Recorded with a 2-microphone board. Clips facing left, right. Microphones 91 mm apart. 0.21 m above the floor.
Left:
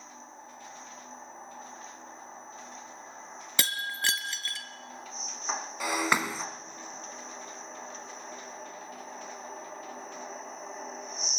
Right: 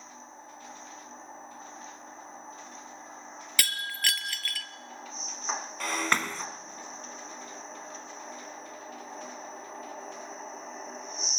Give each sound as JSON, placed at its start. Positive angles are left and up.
{"t": 3.6, "sound": "breaking glass", "side_deg": 25, "distance_m": 1.1}
{"t": 5.8, "sound": "breaking glass", "side_deg": 10, "distance_m": 0.9}